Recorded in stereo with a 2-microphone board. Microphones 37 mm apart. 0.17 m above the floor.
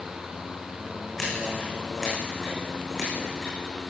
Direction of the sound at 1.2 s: 10° left (ahead or behind).